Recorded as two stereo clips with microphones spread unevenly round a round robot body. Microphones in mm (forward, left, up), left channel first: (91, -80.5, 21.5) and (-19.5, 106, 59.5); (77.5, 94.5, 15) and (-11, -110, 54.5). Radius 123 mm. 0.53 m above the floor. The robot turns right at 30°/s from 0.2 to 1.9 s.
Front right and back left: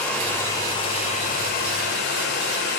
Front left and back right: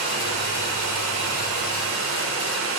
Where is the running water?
140° right, 1.9 m; by 2.8 s 90° right, 1.9 m.